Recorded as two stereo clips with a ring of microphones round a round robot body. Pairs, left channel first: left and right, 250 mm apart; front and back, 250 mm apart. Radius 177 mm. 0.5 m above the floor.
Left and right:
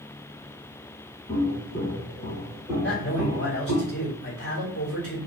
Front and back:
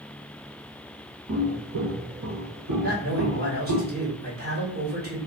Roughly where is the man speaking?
Behind left.